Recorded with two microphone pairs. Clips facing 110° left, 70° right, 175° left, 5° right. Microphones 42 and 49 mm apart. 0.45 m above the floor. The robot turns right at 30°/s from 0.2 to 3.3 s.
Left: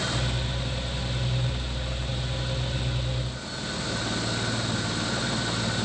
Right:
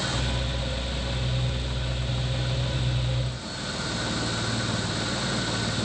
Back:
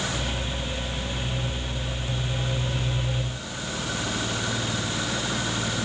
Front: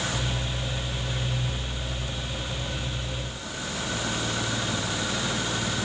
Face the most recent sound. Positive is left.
No sound to turn to.